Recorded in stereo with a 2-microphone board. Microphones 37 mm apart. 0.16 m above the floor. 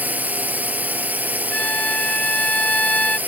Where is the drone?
50° right (ahead or behind).